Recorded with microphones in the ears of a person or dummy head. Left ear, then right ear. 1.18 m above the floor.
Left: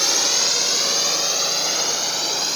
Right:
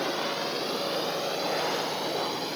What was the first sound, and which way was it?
A drone, 65° left (ahead or behind).